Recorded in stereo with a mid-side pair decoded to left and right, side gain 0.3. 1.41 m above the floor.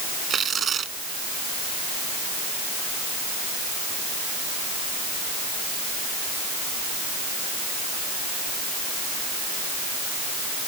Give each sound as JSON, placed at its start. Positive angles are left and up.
{"t": 0.3, "sound": "tearing paper", "azimuth_deg": -70}